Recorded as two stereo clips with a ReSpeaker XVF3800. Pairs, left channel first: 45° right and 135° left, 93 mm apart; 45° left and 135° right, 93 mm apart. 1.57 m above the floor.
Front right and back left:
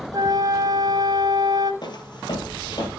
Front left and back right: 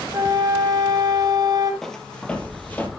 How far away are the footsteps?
About 2.5 m.